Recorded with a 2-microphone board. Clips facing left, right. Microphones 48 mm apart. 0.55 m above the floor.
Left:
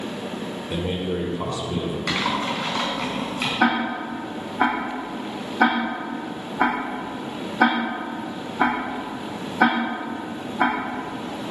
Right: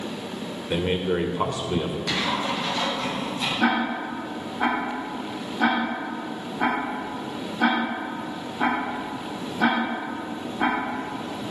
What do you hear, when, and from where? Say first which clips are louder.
0.7 s a man speaking: right 3 dB; 45° right (ahead or behind), 1.9 m
2.1 s typing on a keyboard: left 3 dB; 65° left (ahead or behind), 4 m
3.6 s ticking: left 2 dB; 70° left (ahead or behind), 5.5 m